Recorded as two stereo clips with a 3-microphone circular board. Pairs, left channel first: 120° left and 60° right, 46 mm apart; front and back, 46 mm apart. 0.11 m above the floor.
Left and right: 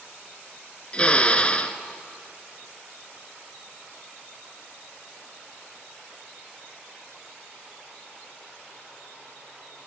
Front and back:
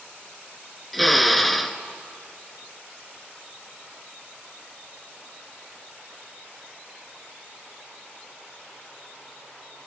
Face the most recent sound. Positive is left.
turn(degrees=85)